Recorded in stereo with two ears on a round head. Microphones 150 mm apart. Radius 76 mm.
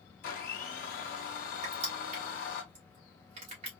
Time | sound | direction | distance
0.2 | a blender | 55° left (ahead or behind) | 1.5 m
1.6 | crushing | 40° right (ahead or behind) | 1.9 m